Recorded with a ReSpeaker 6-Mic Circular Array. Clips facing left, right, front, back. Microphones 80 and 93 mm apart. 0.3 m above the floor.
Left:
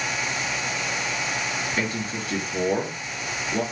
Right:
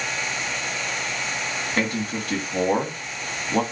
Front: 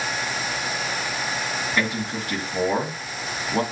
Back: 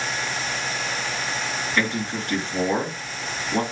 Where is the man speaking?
85° right, 2 m.